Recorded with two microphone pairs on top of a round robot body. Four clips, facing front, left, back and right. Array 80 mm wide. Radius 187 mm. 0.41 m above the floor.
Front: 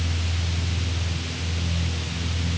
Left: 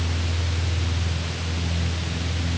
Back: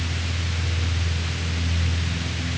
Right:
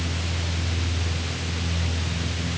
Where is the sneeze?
I don't hear a sneeze.